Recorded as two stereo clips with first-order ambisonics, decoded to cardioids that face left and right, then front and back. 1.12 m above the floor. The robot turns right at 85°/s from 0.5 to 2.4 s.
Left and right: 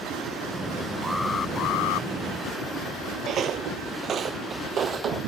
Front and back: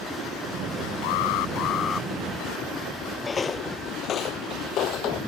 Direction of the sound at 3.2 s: 65° right.